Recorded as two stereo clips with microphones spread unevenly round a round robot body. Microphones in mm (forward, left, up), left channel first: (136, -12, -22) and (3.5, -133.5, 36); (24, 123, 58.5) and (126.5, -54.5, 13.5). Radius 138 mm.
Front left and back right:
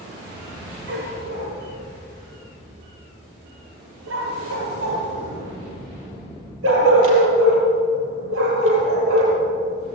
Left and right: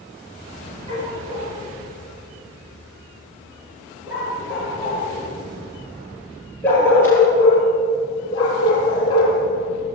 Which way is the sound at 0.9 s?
130° right.